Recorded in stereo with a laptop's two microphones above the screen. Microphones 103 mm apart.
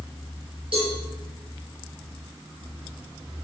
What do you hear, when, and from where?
0.7 s a cowbell: 60° right (ahead or behind), 7 m